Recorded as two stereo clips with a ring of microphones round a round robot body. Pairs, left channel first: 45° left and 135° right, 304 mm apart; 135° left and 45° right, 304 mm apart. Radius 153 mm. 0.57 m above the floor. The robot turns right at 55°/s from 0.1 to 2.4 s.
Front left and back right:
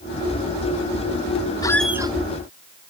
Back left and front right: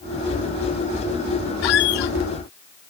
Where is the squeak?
125° left; by 2.1 s 150° left.